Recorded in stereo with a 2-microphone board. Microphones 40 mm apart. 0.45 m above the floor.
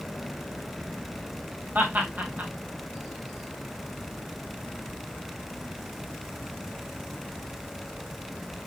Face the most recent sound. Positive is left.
turn(degrees=-50)  # may be behind; listen again after turning